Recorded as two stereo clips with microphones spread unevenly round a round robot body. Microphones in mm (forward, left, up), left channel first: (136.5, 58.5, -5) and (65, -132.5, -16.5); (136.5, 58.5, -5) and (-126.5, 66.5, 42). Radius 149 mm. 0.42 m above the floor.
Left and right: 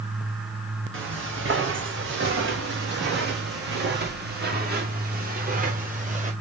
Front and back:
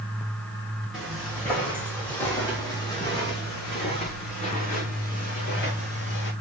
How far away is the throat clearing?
I don't hear throat clearing.